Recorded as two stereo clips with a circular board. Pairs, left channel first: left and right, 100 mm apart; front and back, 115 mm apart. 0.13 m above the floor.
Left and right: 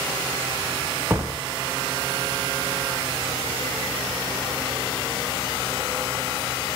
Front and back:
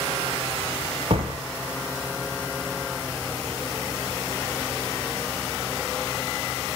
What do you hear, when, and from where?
1.1 s a door slam: 150° right, 2.5 m